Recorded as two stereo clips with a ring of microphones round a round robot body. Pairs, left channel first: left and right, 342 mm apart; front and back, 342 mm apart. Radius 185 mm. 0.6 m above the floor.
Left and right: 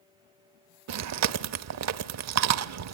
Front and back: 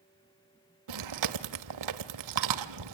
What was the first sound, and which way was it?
Chewing, 135° right.